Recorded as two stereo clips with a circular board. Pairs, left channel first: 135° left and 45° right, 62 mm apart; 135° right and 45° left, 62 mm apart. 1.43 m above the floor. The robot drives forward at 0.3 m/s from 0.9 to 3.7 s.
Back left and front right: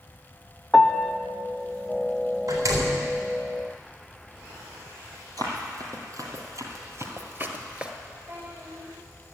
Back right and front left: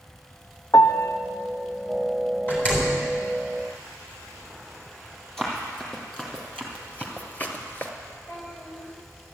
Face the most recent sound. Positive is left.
turn(degrees=-90)